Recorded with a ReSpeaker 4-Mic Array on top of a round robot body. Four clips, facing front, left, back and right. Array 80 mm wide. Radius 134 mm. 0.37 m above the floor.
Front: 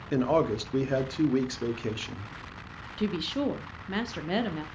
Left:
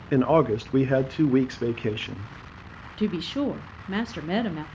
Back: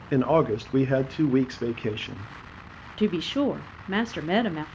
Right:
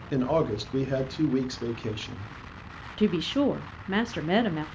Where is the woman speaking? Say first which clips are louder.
Right 2 dB, back 5 dB; 160° right, 0.8 m.